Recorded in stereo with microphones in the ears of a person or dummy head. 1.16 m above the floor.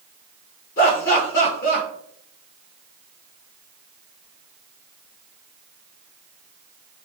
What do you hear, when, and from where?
0.8 s laughter: 55° left (ahead or behind), 1.1 m